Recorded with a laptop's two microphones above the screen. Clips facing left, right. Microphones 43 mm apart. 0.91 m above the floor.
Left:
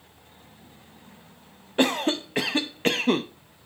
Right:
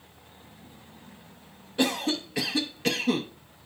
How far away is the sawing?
I don't hear sawing.